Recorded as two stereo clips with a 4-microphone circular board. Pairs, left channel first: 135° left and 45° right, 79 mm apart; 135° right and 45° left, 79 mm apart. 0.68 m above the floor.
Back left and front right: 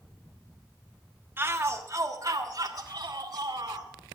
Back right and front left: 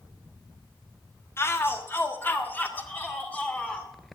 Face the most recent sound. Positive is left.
turn(degrees=-65)